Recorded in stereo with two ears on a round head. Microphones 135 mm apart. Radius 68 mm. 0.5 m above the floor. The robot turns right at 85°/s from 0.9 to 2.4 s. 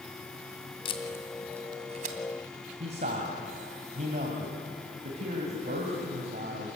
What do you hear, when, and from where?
0.8 s tape being pulled: 40° left (ahead or behind), 2 m; by 2.2 s 65° right (ahead or behind), 2 m
2.8 s a man speaking: 50° right (ahead or behind), 2.5 m